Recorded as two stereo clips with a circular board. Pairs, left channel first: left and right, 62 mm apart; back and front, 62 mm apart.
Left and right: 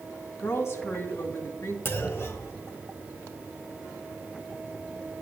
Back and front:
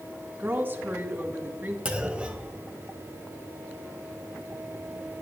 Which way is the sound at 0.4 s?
55° left.